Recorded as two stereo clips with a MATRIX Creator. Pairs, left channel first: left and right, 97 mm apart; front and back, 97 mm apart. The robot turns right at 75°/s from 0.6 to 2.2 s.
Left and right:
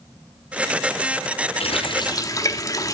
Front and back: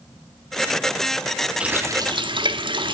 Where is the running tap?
100° left, 1.4 m; by 2.9 s 145° left, 1.4 m.